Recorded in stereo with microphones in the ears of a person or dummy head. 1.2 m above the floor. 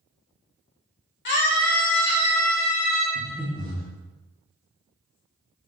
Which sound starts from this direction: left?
A scream, at 1.2 s.